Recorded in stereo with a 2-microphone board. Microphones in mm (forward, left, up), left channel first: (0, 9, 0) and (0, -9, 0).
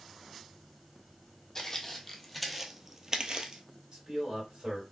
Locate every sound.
1.6 s footsteps: 15° left (ahead or behind), 0.9 m; by 3.6 s 55° right (ahead or behind), 0.6 m
3.9 s a man speaking: 45° right (ahead or behind), 2.5 m